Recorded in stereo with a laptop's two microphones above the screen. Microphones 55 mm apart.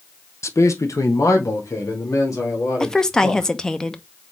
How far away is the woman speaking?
About 0.7 m.